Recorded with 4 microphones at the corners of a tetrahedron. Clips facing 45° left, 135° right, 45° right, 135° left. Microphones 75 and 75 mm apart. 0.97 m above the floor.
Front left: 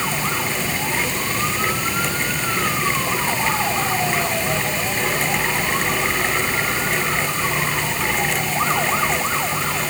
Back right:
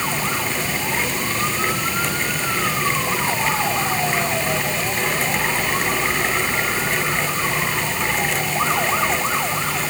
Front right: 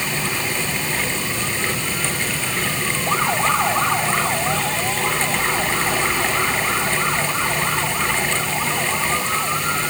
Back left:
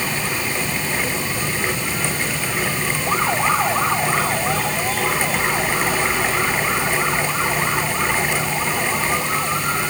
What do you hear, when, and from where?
Only background noise.